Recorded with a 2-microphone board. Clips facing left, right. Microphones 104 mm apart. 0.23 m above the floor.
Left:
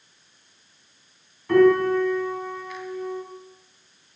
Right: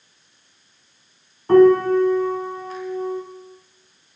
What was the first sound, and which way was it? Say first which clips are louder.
A piano: right 4 dB; 40° right (ahead or behind).